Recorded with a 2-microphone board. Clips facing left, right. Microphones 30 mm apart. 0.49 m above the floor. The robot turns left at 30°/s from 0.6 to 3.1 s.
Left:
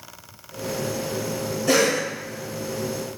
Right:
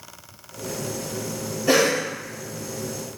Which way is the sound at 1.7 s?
20° right (ahead or behind).